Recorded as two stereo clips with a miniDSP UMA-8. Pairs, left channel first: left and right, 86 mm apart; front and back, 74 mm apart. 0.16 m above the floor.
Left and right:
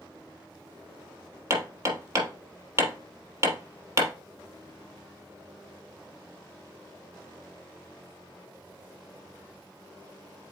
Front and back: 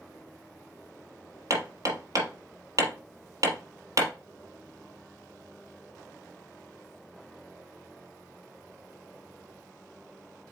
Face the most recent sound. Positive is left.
turn(degrees=-140)